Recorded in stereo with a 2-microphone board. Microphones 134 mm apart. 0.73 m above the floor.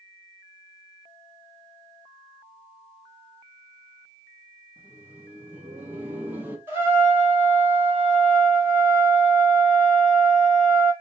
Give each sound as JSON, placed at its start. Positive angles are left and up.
{"t": 4.8, "sound": "laughter", "side_deg": -15, "distance_m": 0.7}
{"t": 6.7, "sound": "a trumpet", "side_deg": -15, "distance_m": 1.2}